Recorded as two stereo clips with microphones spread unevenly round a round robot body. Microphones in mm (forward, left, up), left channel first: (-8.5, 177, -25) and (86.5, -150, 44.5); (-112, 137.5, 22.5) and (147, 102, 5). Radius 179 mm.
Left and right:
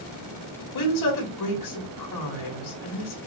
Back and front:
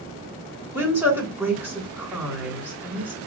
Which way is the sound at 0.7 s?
75° left.